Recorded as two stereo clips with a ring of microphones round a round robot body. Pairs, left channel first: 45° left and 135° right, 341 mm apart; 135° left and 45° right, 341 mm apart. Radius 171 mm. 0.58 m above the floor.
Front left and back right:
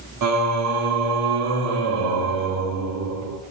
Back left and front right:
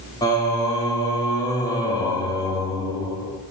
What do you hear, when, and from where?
0.2 s singing: 150° right, 1.6 m